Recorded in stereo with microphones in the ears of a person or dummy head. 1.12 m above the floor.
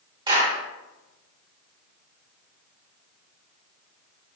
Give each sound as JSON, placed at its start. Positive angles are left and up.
{"t": 0.3, "sound": "a clap", "side_deg": -25, "distance_m": 1.4}